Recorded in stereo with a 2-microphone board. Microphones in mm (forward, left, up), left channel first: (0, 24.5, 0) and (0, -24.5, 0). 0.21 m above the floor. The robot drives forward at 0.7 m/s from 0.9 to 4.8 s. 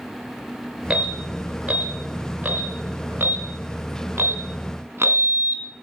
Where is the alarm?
25° right (ahead or behind), 3 m; by 5.7 s 50° right (ahead or behind), 1.8 m.